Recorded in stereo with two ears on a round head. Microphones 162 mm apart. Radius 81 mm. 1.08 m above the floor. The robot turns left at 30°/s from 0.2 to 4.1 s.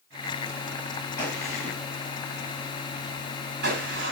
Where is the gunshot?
10° left (ahead or behind), 8 m; by 4.1 s 75° right (ahead or behind), 8 m.